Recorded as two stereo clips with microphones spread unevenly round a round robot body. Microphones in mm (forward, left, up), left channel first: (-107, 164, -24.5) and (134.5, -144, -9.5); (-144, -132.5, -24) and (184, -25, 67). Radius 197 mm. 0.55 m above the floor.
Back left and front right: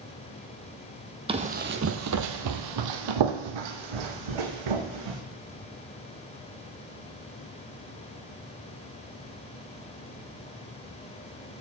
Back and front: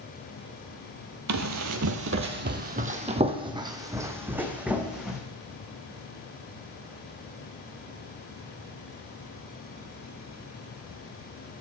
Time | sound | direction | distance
1.3 | running footsteps | 20° left | 0.9 m